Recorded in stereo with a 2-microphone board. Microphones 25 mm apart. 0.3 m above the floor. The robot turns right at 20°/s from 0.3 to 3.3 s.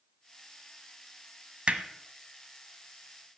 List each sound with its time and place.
1.7 s hammering: 55° right (ahead or behind), 1.3 m; by 1.8 s 50° right (ahead or behind), 1.3 m